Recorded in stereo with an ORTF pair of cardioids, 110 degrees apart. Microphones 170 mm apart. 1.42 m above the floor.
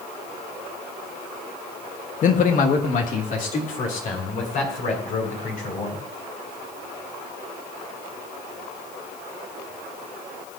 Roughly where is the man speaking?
Ahead left.